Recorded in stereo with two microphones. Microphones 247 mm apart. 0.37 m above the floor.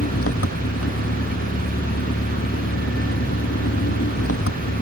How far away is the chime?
No chime in this recording.